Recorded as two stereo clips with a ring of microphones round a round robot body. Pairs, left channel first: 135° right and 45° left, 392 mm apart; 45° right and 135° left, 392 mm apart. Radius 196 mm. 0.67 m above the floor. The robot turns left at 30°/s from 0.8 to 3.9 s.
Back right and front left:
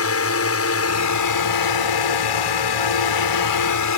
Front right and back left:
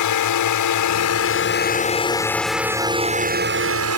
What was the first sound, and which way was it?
A drone, 85° right.